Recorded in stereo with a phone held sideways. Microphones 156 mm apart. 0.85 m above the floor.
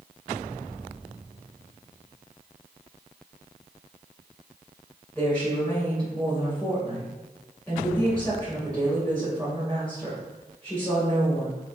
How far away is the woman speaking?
About 3 m.